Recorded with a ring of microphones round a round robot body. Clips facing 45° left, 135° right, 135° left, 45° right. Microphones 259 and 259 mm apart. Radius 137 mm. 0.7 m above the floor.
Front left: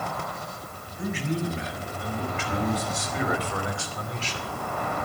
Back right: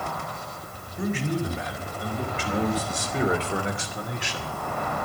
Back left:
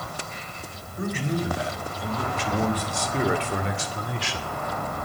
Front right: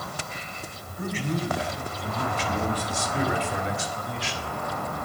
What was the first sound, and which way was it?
A man speaking, 175° right.